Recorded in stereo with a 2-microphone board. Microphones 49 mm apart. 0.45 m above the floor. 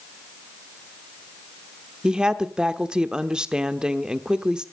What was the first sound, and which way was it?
A woman speaking, 15° right (ahead or behind).